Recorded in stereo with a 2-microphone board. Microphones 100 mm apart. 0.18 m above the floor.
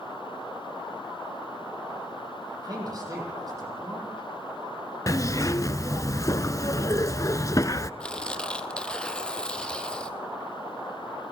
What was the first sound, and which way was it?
A man speaking, 40° right (ahead or behind).